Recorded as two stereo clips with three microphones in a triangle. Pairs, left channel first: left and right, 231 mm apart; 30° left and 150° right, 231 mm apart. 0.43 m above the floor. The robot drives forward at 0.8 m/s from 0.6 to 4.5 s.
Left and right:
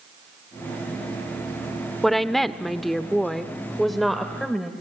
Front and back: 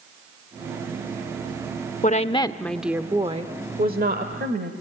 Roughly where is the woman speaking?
Ahead.